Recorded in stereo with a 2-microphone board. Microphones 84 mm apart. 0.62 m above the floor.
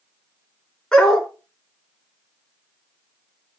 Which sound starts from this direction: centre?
A dog barking, at 0.9 s.